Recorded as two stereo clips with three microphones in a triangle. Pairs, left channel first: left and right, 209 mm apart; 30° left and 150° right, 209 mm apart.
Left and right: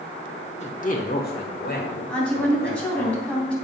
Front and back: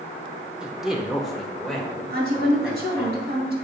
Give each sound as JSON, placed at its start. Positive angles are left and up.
{"t": 0.6, "sound": "a man speaking", "azimuth_deg": 125, "distance_m": 1.2}
{"t": 2.1, "sound": "a woman speaking", "azimuth_deg": 175, "distance_m": 3.0}